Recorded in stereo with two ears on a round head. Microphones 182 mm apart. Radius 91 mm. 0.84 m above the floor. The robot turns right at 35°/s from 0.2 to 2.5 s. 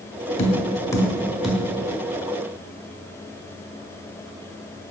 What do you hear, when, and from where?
0.4 s tapping: 30° left (ahead or behind), 0.9 m; by 1.6 s 5° right (ahead or behind), 0.9 m